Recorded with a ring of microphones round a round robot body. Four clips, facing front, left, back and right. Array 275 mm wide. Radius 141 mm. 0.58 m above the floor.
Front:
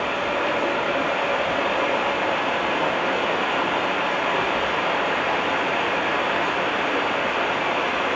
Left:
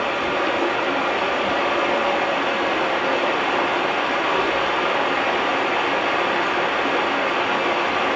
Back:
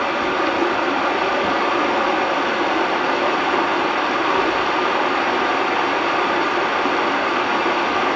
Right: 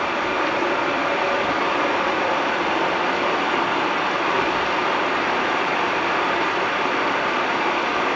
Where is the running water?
175° right, 5.5 m.